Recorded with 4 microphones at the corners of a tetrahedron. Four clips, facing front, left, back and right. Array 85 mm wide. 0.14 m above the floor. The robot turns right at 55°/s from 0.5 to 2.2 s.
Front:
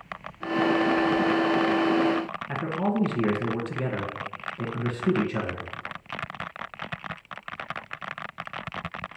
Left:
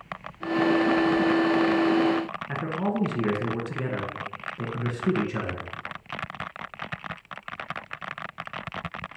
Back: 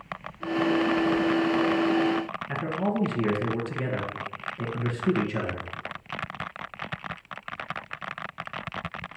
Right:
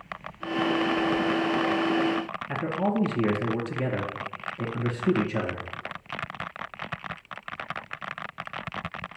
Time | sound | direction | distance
2.5 | a man speaking | 60° left | 1.8 m